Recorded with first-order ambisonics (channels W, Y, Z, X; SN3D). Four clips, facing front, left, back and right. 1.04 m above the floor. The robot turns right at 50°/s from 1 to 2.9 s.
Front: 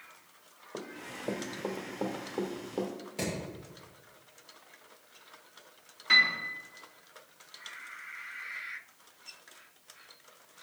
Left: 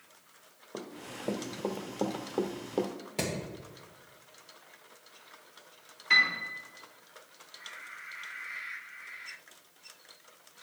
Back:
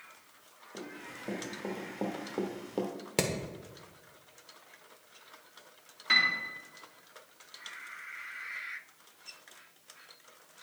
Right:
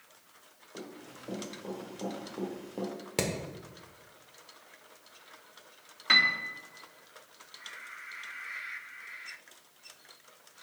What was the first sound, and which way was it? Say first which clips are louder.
Running footsteps: left 4 dB, front 2 dB; 55° left.